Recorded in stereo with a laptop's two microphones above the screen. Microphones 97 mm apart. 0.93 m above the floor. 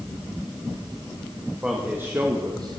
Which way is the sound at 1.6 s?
10° right (ahead or behind).